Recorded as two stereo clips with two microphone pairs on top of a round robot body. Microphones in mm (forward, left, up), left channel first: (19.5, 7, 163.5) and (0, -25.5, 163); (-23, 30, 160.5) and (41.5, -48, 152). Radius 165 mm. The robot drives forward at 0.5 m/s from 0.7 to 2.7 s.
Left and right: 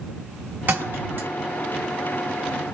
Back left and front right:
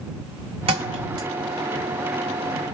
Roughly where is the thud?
Right.